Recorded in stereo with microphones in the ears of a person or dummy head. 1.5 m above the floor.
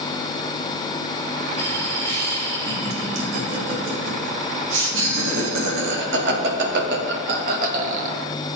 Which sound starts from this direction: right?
Laughter, at 1.6 s.